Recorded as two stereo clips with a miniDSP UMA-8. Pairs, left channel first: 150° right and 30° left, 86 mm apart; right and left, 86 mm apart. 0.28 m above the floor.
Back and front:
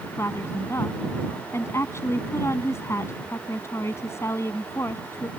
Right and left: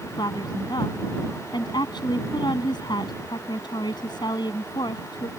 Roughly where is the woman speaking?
Right.